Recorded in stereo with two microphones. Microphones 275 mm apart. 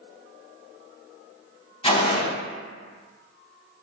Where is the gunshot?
20° left (ahead or behind), 0.6 m.